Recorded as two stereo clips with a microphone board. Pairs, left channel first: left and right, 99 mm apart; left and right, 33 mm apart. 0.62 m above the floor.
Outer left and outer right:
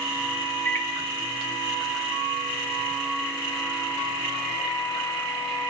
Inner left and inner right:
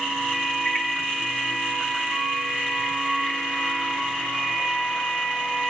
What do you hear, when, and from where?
0.7 s a microwave: 30° left (ahead or behind), 1.5 m